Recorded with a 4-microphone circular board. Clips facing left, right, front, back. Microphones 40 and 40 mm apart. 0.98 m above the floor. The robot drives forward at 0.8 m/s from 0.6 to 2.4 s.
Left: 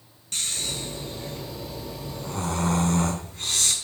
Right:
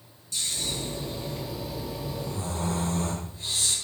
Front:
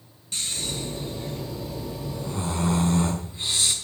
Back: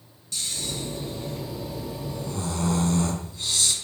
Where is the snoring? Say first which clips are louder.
Left 1 dB, front 1 dB; 50° left, 5 m; by 3.7 s 65° left, 4.5 m.